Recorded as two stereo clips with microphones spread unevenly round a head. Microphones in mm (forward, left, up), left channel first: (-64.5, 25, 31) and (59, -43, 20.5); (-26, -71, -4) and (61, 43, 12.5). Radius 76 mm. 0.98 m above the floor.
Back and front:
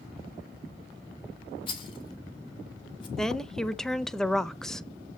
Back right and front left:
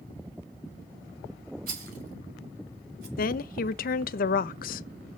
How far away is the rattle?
About 1.8 m.